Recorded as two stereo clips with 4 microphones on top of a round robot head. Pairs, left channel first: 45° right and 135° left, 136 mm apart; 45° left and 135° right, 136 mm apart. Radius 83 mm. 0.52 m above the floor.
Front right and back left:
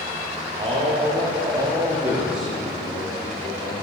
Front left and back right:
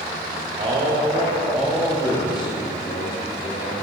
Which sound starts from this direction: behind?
A man speaking, at 0.6 s.